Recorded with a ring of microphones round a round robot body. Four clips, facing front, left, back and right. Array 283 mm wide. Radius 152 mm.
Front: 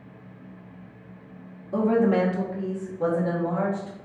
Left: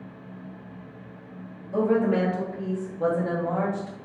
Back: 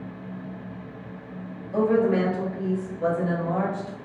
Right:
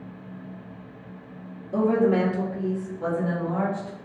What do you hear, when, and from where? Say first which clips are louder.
1.7 s a woman speaking: right 1 dB, even; 15° right, 1.8 m; by 4.0 s 45° left, 2.0 m